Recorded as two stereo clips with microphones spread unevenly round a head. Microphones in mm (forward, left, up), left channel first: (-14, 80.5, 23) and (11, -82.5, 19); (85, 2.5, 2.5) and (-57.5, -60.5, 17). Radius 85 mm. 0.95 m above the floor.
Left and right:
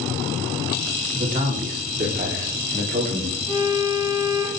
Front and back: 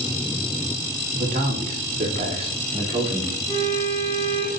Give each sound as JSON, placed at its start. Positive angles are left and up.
{"t": 1.1, "sound": "a man speaking", "azimuth_deg": -120, "distance_m": 2.0}
{"t": 3.5, "sound": "a violin", "azimuth_deg": -20, "distance_m": 3.0}